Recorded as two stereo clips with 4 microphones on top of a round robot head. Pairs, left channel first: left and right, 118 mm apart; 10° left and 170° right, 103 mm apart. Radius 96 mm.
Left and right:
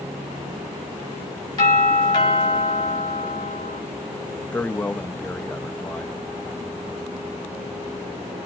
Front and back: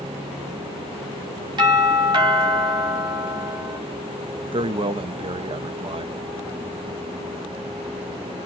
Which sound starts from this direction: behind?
A man speaking, at 4.5 s.